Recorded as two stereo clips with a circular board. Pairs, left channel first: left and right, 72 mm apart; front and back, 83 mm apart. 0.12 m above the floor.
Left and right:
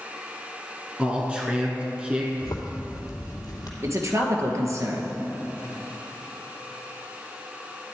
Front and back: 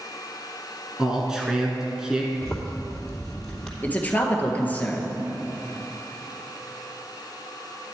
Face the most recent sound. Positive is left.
turn(degrees=-65)